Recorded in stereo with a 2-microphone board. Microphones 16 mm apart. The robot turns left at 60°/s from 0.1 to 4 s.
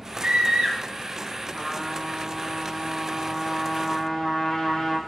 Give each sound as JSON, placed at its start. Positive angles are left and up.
{"t": 0.2, "sound": "a scream", "azimuth_deg": -60, "distance_m": 2.5}
{"t": 1.5, "sound": "a trumpet", "azimuth_deg": -80, "distance_m": 4.0}